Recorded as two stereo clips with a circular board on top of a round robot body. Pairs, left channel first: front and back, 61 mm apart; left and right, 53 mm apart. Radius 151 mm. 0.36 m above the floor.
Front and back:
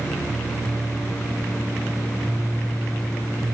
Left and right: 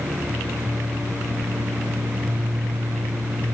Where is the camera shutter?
No camera shutter in this recording.